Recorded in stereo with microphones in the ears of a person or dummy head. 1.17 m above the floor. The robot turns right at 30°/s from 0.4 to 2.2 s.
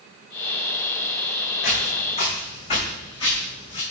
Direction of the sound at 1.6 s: 55° left (ahead or behind).